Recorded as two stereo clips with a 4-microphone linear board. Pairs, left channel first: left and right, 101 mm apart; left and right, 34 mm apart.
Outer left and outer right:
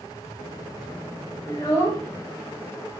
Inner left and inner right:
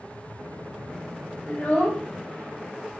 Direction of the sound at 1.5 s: 30° left (ahead or behind).